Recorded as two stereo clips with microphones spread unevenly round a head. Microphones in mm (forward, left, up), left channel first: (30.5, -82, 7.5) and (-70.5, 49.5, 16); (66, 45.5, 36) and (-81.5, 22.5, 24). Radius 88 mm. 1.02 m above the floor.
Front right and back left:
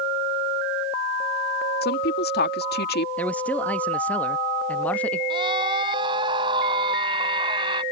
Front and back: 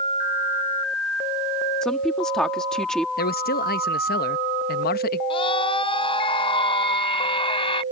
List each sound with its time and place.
1.8 s a woman speaking: 80° right
3.2 s a man speaking: 30° left
5.3 s a scream: 65° left